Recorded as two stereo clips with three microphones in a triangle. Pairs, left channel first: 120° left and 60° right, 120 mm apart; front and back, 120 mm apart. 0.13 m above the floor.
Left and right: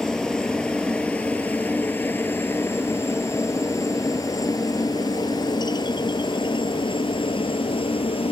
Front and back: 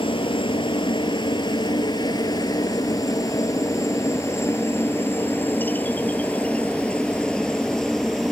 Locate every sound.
0.0 s a helicopter: 35° left; by 8.3 s 85° left